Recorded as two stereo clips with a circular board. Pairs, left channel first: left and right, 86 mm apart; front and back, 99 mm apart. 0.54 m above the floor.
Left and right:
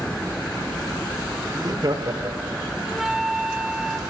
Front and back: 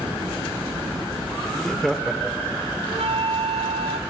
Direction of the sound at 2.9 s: 175° right.